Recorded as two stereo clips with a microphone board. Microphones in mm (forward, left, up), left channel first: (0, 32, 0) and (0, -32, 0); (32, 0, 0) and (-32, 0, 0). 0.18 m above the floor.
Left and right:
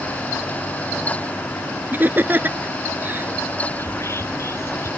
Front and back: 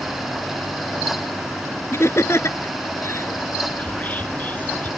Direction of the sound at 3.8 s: 60° left.